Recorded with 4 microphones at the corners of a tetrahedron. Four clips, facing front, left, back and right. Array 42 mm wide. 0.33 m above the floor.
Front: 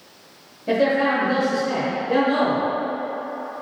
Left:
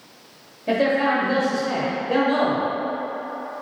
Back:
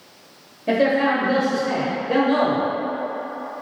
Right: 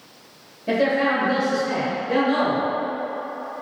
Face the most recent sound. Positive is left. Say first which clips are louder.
# even, back 1 dB
turn(degrees=150)